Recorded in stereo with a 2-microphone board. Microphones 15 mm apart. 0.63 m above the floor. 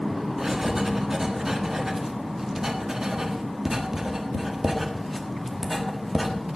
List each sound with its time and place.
0.4 s writing: 25° right (ahead or behind), 1.4 m